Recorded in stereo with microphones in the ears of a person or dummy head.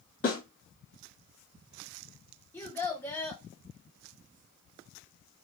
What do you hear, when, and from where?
0.2 s a snare drum: 50° left (ahead or behind), 1.7 m
2.5 s a child speaking: 10° left (ahead or behind), 0.9 m